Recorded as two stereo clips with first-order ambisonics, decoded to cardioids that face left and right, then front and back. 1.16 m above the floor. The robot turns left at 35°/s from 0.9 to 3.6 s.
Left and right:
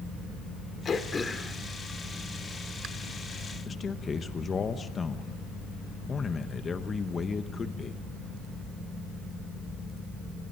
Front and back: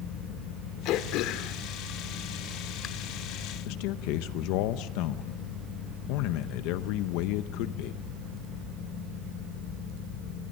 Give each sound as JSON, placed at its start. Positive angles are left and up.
{"t": 0.8, "sound": "throat clearing", "azimuth_deg": 25, "distance_m": 1.3}
{"t": 3.6, "sound": "a man speaking", "azimuth_deg": 20, "distance_m": 0.8}